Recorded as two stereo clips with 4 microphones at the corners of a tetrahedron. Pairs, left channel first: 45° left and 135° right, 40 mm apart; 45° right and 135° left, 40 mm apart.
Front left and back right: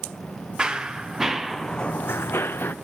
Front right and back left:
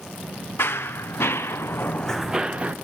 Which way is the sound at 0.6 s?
65° right.